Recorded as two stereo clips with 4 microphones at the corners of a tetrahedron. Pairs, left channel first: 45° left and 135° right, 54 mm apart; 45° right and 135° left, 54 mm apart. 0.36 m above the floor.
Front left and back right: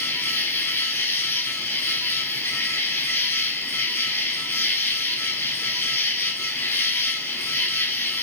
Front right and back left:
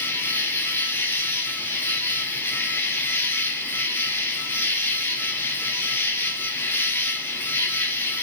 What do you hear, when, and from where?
0.0 s an insect: 5° left, 0.9 m